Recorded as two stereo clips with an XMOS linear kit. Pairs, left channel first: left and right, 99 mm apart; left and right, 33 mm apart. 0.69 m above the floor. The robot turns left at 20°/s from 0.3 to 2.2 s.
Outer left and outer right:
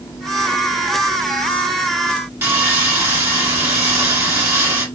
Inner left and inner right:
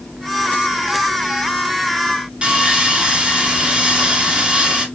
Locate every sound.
2.4 s sawing: 25° right (ahead or behind), 1.4 m